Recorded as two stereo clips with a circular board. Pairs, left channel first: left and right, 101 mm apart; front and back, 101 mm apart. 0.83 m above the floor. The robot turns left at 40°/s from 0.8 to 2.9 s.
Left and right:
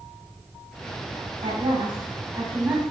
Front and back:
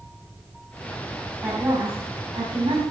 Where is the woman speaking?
115° right, 5 m; by 2.8 s 170° right, 5 m.